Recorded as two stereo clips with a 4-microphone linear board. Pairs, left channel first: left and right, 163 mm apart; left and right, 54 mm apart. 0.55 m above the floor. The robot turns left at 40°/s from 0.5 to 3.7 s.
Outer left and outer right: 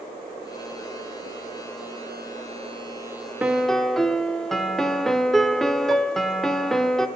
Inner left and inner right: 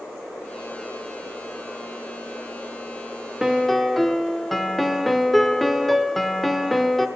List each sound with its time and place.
3.4 s a piano: 10° right (ahead or behind), 0.6 m; by 7.1 s centre (ahead or behind), 0.6 m